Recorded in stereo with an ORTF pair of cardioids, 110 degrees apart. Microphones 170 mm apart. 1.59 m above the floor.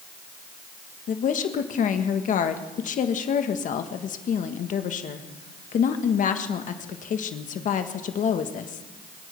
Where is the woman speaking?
50° left, 1.5 m.